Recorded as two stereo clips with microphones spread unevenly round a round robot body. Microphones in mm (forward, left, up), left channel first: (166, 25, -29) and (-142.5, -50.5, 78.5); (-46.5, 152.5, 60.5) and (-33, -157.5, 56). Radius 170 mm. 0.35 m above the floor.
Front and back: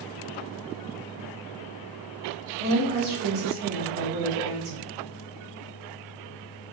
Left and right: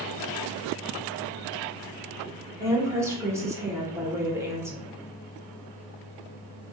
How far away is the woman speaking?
About 1.0 m.